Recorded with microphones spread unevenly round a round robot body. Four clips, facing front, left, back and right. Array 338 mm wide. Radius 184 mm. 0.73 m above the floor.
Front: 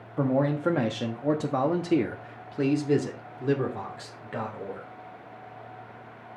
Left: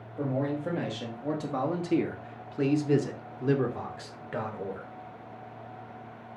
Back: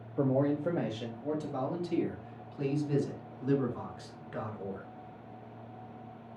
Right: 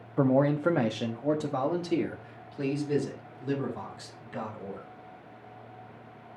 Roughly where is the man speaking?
Ahead right.